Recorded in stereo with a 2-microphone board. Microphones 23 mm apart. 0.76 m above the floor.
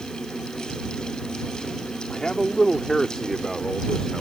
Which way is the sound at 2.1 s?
30° left (ahead or behind).